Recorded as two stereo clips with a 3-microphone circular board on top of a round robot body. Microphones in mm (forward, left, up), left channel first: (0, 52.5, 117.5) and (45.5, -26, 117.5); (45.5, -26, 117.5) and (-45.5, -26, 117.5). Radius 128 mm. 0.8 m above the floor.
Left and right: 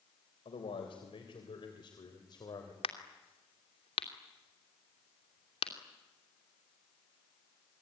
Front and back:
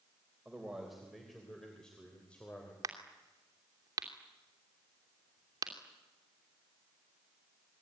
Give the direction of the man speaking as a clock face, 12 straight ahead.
9 o'clock.